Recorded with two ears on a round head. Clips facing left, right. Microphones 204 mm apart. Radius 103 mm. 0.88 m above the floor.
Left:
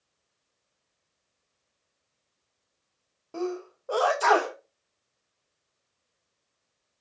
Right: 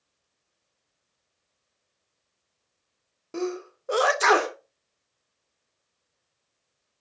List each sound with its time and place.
3.3 s a sneeze: 25° right (ahead or behind), 0.7 m